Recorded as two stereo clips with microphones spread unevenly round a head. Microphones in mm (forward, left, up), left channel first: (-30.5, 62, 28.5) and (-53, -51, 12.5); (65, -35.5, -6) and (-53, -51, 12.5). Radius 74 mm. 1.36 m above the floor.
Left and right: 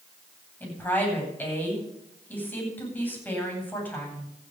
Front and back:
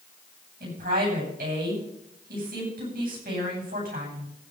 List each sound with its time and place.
0.6 s a woman speaking: 155° left, 9.5 m